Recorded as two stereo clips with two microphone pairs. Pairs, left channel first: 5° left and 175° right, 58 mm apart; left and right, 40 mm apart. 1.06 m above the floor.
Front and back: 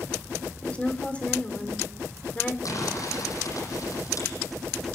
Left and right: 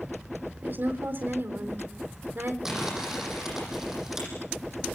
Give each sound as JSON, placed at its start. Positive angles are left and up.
{"t": 0.6, "sound": "a woman speaking", "azimuth_deg": -65, "distance_m": 4.0}
{"t": 2.6, "sound": "crumpling", "azimuth_deg": -15, "distance_m": 9.5}